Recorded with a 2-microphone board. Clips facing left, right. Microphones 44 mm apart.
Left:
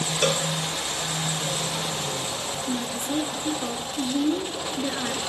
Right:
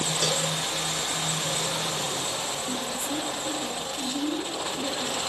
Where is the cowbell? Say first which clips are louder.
Left 6 dB; 50° left (ahead or behind), 1.4 m.